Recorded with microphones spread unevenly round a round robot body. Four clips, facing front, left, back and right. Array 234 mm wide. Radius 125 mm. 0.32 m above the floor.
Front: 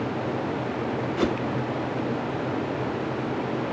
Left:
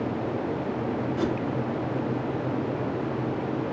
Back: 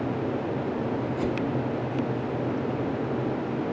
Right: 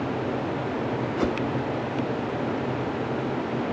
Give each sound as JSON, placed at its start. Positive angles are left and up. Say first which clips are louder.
{"t": 1.2, "sound": "a whoosh", "louder": "right 2 dB, front 6 dB", "azimuth_deg": -35, "distance_m": 1.0}